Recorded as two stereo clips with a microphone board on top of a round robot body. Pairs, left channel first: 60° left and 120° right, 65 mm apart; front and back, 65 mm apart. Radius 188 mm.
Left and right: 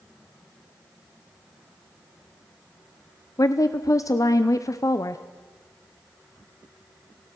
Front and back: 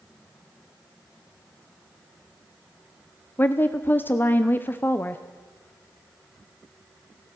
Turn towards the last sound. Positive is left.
turn(degrees=55)